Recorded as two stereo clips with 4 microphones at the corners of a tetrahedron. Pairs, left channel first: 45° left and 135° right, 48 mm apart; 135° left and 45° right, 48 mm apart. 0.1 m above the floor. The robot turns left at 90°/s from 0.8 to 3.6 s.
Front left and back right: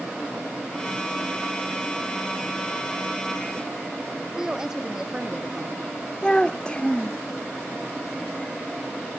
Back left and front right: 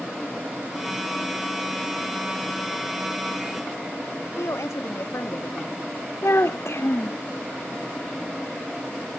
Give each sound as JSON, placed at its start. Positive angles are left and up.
{"t": 4.4, "sound": "a woman speaking", "azimuth_deg": 145}
{"t": 6.2, "sound": "a child speaking", "azimuth_deg": 115}